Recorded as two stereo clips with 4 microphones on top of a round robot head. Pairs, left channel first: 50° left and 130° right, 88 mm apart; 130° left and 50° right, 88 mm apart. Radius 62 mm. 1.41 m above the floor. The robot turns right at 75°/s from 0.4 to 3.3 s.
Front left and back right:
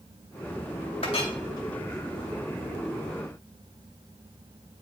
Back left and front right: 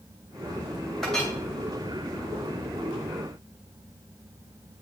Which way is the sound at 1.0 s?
45° left.